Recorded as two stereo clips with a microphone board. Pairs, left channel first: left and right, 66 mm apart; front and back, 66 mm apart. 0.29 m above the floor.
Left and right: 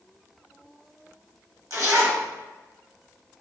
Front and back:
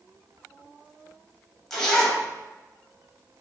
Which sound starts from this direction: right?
A zipper, at 1.7 s.